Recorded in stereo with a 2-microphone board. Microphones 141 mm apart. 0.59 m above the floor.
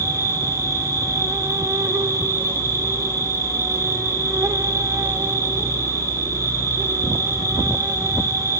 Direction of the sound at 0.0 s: 20° right (ahead or behind).